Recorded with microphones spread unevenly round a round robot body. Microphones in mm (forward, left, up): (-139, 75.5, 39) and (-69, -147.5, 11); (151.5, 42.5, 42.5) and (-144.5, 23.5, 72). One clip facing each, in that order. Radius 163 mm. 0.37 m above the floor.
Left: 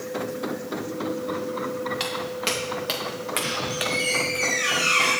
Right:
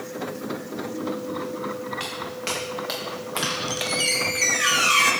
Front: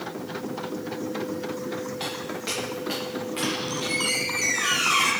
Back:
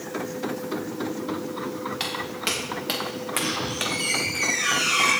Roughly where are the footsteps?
Behind left.